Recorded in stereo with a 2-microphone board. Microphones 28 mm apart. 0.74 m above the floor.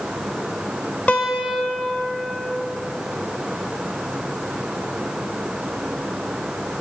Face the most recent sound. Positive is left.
turn(degrees=55)  # may be behind; listen again after turning